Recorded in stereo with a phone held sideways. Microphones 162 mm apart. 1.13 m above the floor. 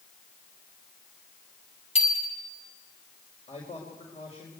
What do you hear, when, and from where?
1.9 s a bicycle bell: 40° left (ahead or behind), 4.5 m
3.5 s a man speaking: 45° left (ahead or behind), 5 m